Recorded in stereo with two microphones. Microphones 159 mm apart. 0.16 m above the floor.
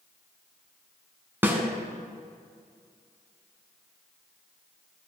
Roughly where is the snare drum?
Centre.